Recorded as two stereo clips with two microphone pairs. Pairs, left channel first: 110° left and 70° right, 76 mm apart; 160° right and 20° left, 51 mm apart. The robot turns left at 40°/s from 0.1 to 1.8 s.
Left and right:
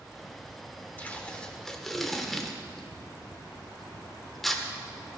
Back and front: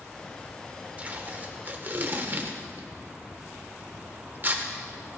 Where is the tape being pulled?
60° left, 1.3 m; by 4.6 s 25° left, 1.3 m.